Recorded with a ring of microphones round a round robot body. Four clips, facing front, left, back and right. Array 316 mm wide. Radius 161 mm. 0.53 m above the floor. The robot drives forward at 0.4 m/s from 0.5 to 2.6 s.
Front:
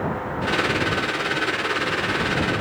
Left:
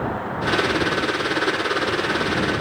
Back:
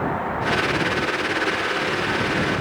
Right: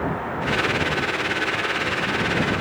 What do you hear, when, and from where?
Only background noise.